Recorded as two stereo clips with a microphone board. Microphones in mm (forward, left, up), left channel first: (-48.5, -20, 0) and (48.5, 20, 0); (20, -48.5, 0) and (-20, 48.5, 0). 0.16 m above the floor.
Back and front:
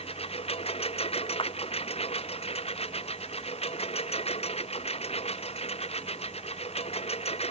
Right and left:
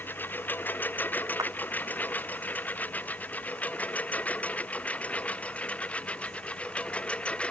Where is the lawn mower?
140° right; by 7.5 s 145° right.